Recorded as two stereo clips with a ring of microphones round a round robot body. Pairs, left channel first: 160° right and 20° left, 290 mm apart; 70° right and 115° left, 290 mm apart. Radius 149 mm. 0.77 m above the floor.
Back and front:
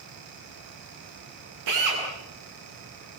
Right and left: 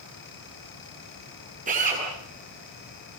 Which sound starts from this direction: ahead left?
A drill, at 1.7 s.